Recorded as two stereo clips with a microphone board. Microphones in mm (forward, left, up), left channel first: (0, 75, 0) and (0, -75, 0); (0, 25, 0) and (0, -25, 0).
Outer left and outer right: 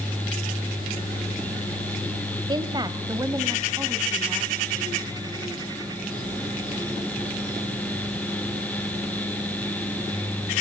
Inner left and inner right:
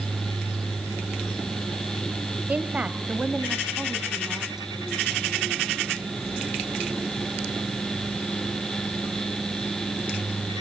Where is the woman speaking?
35° right (ahead or behind), 1.1 m; by 4.7 s 15° right (ahead or behind), 2.5 m.